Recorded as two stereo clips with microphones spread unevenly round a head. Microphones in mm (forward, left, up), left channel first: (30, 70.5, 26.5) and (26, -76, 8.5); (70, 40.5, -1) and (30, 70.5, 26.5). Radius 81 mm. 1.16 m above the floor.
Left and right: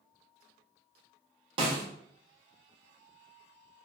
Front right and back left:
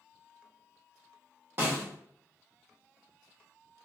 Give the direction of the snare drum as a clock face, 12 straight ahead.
5 o'clock.